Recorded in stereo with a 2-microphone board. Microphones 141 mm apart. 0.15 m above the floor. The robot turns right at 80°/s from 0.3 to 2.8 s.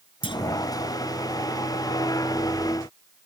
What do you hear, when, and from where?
0.2 s a clunk: 40° left (ahead or behind); by 0.4 s 30° left (ahead or behind)